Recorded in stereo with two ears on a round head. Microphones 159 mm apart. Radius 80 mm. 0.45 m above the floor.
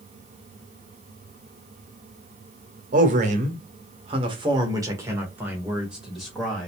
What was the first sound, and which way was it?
A man speaking, 45° right (ahead or behind).